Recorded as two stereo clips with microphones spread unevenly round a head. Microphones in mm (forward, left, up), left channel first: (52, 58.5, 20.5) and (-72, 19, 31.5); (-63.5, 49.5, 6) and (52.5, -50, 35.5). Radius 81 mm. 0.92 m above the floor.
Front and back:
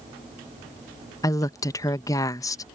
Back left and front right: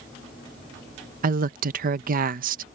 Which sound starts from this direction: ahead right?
A woman speaking, at 1.2 s.